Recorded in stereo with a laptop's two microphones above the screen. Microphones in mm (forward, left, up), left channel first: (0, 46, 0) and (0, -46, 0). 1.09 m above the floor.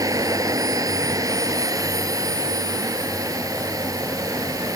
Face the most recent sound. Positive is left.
turn(degrees=-40)  # may be behind; listen again after turning